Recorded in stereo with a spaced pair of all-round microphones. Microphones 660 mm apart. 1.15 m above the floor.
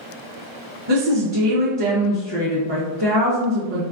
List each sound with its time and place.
0.9 s a woman speaking: 40° right (ahead or behind), 0.6 m